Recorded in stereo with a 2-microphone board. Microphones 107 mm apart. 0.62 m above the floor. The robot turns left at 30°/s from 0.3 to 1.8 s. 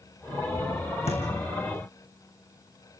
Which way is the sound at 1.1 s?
75° left (ahead or behind).